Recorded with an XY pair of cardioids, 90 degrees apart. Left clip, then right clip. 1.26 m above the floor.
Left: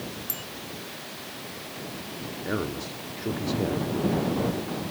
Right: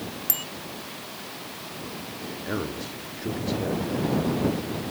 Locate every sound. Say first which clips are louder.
0.3 s a bicycle bell: right 5 dB; 60° right
2.4 s a man speaking: left 1 dB; 15° left